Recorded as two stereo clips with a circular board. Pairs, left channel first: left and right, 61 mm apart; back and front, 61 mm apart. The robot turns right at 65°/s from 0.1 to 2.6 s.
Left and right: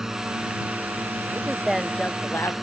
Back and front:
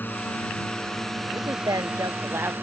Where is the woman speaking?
25° right; by 2.6 s 55° left.